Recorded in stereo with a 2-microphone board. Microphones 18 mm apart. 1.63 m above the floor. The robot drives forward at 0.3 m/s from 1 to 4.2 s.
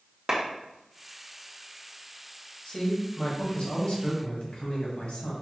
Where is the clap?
30° right (ahead or behind), 1.2 m.